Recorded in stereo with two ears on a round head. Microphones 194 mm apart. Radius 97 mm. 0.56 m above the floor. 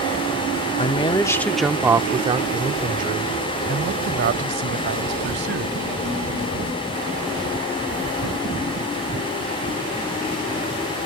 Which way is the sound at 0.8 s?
30° left (ahead or behind).